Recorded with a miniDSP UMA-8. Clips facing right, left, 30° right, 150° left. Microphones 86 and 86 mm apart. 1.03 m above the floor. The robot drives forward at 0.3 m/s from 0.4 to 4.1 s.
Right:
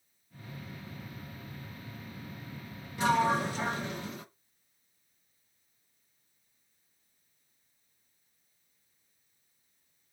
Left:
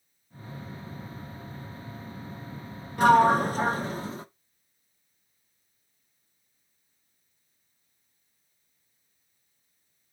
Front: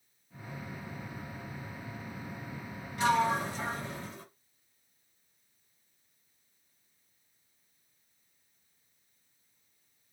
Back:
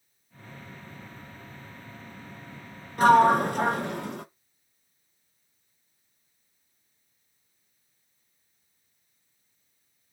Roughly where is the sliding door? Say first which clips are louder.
Left 8 dB, back 10 dB; behind left.